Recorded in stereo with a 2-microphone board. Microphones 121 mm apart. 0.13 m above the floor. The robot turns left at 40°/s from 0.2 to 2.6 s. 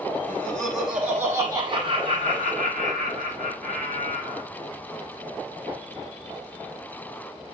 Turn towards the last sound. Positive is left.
turn(degrees=-70)